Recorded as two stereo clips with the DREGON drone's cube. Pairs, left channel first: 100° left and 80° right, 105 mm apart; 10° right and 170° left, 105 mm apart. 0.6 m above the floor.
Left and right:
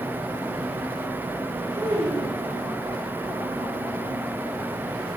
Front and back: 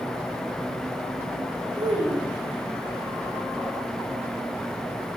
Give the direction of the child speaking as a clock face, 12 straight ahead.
5 o'clock.